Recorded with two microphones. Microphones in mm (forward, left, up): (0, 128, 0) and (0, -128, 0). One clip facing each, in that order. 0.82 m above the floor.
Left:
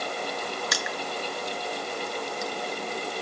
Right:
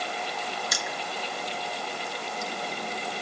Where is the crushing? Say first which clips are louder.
Left 3 dB; 70° left (ahead or behind), 0.9 m.